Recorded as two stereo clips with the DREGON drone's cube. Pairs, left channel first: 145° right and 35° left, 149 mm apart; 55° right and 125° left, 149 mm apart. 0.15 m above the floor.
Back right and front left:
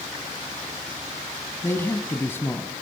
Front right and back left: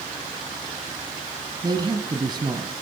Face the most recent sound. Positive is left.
turn(degrees=155)